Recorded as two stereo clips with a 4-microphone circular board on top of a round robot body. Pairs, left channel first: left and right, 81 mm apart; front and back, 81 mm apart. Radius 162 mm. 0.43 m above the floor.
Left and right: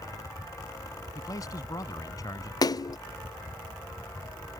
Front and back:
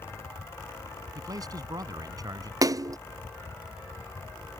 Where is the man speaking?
140° left.